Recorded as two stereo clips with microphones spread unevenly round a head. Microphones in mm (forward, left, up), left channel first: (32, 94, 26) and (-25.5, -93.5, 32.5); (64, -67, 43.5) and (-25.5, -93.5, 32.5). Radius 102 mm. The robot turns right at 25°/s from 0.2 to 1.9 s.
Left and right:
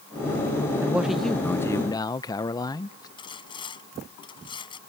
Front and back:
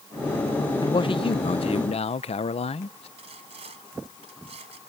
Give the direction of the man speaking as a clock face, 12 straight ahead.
1 o'clock.